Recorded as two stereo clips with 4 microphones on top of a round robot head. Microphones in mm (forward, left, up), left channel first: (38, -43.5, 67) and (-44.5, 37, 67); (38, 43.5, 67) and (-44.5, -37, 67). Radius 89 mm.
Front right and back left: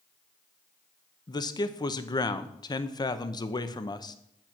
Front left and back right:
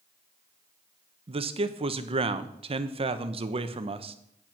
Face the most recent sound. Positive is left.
turn(degrees=-100)